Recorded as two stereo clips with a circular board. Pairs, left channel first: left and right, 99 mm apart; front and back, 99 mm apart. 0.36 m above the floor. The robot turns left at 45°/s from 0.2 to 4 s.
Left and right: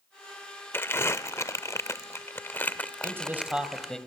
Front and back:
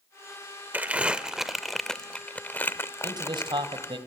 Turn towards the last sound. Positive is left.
turn(degrees=170)